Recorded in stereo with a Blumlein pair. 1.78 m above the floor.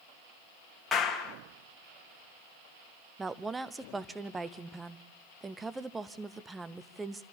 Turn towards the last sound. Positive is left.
turn(degrees=-10)